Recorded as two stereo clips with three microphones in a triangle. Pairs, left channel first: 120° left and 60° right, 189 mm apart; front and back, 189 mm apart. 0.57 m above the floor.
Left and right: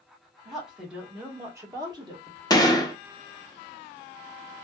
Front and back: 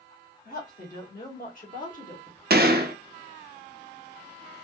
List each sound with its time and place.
0.5 s a woman speaking: 30° left, 1.8 m; by 2.4 s 20° right, 1.2 m
2.5 s a gunshot: 175° right, 0.5 m